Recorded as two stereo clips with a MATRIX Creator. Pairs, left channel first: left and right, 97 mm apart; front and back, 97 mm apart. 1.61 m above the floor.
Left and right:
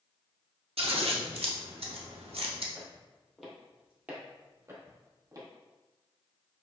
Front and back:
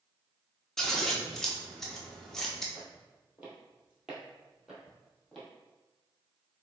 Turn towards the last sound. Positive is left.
turn(degrees=-85)